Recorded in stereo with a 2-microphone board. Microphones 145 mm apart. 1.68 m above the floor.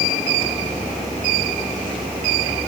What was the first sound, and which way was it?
Only background noise.